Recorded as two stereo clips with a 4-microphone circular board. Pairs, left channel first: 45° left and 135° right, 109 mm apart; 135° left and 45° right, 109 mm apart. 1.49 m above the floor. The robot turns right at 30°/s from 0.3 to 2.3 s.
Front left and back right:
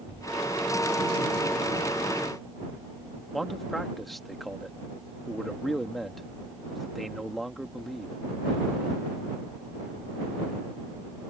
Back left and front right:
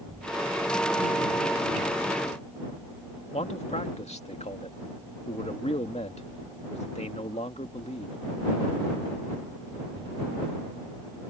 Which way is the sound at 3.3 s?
135° left.